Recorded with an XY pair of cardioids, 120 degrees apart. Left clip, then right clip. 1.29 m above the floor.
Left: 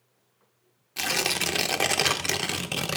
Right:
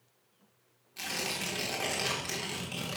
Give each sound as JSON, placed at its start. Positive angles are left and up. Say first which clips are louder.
{"t": 1.0, "sound": "tearing paper", "louder": "left 9 dB", "azimuth_deg": 65, "distance_m": 0.8}